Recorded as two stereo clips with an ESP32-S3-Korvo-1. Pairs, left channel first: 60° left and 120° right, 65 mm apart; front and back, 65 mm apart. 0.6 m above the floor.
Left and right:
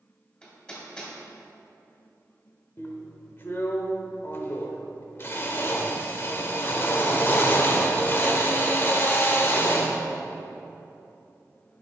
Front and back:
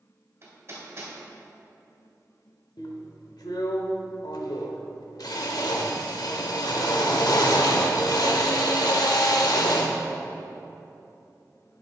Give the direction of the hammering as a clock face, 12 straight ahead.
8 o'clock.